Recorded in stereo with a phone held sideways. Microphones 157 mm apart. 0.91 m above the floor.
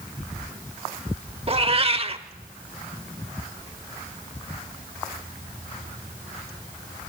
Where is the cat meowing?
40° right (ahead or behind), 0.9 m.